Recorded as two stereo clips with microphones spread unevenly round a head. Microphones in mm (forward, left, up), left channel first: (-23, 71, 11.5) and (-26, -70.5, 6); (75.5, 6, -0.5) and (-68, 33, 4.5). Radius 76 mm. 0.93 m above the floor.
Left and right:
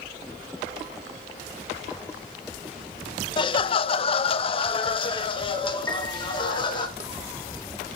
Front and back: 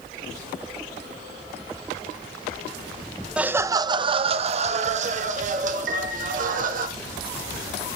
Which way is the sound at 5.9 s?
155° left.